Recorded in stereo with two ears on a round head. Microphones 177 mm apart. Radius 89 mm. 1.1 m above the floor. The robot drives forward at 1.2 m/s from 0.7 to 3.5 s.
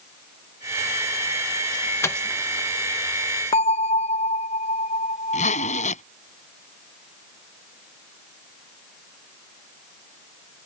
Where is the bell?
30° left (ahead or behind).